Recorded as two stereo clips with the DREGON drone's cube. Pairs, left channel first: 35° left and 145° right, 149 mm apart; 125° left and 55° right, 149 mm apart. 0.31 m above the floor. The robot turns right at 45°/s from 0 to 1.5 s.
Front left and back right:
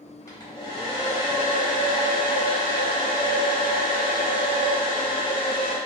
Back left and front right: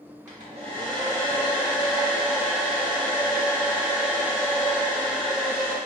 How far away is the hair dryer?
About 0.8 m.